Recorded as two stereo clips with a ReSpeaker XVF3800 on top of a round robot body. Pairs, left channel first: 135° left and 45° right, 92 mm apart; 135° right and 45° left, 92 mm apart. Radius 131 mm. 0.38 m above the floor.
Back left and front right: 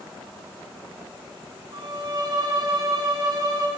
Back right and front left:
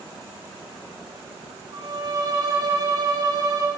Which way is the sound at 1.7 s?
Straight ahead.